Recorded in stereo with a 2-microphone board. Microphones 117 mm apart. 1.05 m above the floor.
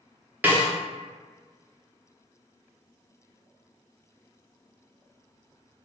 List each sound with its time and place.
0.4 s a snare drum: 15° right (ahead or behind), 0.7 m